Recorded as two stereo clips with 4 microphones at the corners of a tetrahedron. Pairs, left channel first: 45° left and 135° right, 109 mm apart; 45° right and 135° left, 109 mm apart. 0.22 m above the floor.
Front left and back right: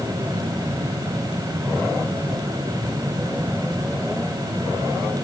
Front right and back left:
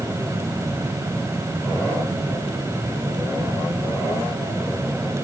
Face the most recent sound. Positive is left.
No sound to turn to.